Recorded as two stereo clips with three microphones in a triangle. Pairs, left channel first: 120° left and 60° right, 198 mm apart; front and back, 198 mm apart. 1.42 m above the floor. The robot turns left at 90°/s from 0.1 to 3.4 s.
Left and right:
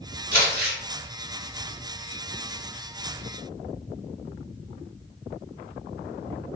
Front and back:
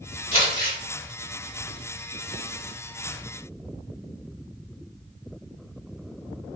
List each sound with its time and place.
0.3 s crumpling: 40° right, 1.4 m; by 0.8 s 80° right, 1.4 m